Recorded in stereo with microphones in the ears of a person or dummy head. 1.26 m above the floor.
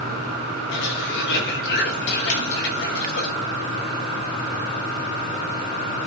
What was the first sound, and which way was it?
A cough, 60° left (ahead or behind).